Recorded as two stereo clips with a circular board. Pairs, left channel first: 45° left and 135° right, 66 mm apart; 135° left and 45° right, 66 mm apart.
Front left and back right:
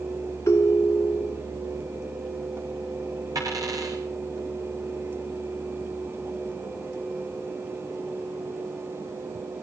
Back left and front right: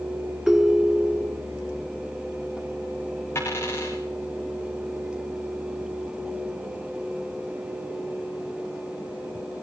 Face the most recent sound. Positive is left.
turn(degrees=-170)